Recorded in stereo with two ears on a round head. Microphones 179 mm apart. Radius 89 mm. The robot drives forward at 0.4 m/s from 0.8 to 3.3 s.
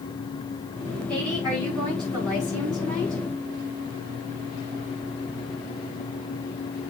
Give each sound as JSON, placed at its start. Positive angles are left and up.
{"t": 1.1, "sound": "a woman speaking", "side_deg": -20, "distance_m": 7.5}